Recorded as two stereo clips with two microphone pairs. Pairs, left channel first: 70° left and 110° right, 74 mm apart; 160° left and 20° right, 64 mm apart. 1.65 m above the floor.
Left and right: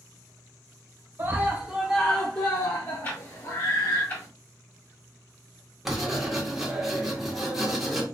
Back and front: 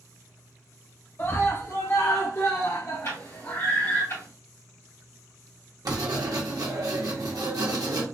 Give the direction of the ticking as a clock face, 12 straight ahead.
8 o'clock.